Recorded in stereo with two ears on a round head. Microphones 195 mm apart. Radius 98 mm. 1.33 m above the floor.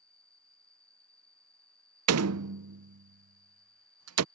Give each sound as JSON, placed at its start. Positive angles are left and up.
{"t": 0.0, "sound": "an insect", "side_deg": 5}
{"t": 2.1, "sound": "a door slam", "side_deg": -80}